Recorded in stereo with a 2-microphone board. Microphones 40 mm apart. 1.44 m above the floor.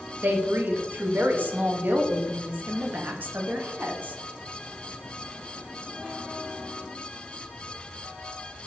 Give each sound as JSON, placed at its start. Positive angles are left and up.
{"t": 0.2, "sound": "a woman speaking", "side_deg": -50, "distance_m": 0.7}